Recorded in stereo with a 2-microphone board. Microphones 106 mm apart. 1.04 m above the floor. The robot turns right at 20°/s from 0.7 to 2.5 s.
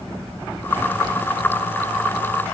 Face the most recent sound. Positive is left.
No sound to turn to.